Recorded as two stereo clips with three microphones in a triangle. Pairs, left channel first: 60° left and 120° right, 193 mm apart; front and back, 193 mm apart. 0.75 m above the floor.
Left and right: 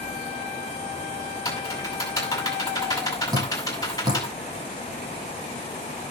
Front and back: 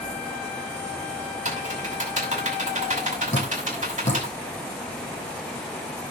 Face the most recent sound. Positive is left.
turn(degrees=-50)